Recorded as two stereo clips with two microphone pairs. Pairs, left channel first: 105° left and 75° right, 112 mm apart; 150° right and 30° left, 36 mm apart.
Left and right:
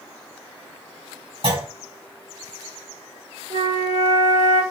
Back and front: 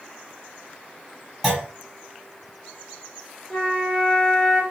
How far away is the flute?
About 1.8 m.